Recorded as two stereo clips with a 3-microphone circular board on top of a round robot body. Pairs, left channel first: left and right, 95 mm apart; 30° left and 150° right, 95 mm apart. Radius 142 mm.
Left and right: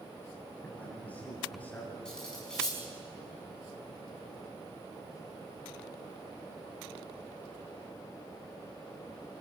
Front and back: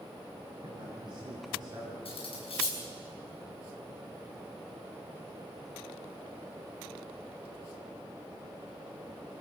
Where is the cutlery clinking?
5° left, 6 m.